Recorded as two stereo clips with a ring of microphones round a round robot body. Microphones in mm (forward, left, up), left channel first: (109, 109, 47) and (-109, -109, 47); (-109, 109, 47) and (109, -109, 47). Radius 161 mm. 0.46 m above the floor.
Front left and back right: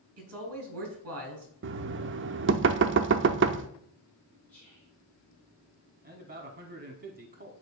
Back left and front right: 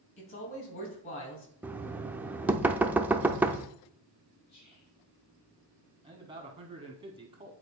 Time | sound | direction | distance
0.2 | a man speaking | 175° right | 3 m
1.6 | knocking | 125° right | 0.5 m
4.5 | whispering | 130° left | 1.5 m
6.0 | a man speaking | 105° right | 1.1 m